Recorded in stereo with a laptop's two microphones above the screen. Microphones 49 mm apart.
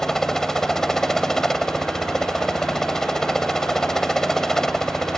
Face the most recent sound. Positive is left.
turn(degrees=5)  # may be behind; listen again after turning